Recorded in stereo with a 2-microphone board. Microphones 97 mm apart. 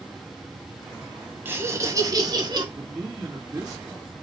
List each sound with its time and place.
1.4 s laughter: 20° right (ahead or behind), 1.4 m; by 2.6 s 50° right (ahead or behind), 2 m
2.8 s a man speaking: 20° right (ahead or behind), 2.5 m